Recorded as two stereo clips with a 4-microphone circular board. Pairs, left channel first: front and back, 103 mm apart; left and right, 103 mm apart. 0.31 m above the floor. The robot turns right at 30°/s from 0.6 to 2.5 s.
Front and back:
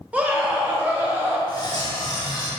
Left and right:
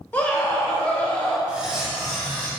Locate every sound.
0.1 s a scream: 135° left, 0.8 m; by 1.4 s 155° left, 0.8 m
1.5 s cutlery clinking: 15° right, 0.9 m; by 2.5 s 20° left, 0.9 m